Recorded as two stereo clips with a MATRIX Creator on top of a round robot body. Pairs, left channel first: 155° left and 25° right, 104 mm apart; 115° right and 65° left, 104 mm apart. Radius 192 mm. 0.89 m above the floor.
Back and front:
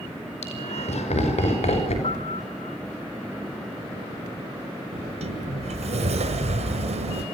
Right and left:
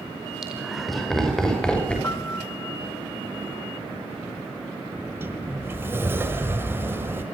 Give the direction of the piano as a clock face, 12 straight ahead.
6 o'clock.